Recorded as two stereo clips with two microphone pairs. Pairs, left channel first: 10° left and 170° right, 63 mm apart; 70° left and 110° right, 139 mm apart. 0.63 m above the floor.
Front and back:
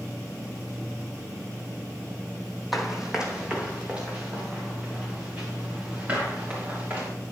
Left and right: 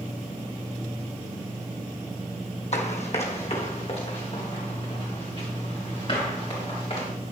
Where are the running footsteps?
105° left, 1.4 m; by 7.1 s 125° left, 6.5 m.